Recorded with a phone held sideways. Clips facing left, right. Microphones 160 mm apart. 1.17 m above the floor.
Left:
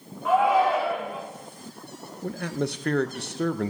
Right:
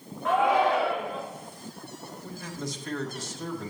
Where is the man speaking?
65° left (ahead or behind), 0.6 m.